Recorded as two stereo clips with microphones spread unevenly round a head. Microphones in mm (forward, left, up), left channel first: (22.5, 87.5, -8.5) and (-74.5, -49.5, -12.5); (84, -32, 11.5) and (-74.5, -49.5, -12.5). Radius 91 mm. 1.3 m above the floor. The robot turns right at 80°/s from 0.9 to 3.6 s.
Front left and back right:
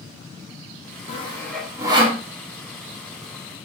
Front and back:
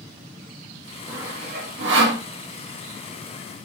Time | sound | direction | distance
1.1 | sawing | 100° left | 1.1 m